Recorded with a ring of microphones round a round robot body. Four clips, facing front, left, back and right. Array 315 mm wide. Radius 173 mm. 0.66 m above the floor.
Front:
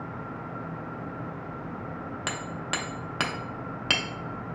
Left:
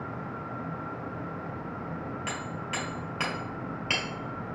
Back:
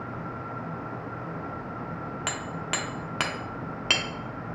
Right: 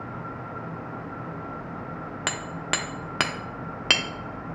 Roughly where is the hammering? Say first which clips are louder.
Right 4 dB, even; right.